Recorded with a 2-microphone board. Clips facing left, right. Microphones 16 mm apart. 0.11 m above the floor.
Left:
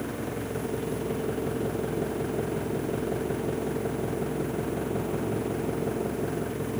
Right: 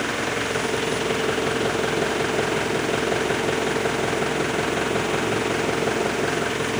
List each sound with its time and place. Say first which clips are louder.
0.0 s an engine running: right 9 dB; 55° right (ahead or behind)